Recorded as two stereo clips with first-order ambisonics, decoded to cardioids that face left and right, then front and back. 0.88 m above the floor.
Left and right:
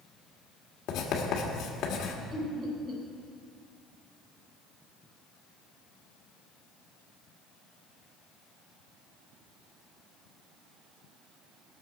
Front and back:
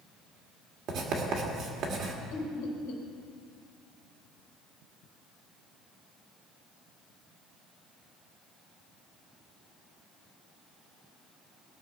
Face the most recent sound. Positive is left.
turn(degrees=-25)